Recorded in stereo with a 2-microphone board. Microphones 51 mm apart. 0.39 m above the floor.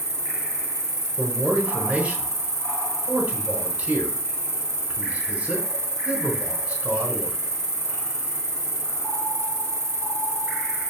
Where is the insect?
55° right (ahead or behind), 3.5 m.